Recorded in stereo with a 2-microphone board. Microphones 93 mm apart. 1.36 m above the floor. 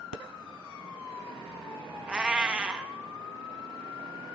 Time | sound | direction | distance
2.1 | a cat meowing | 10° right (ahead or behind) | 0.8 m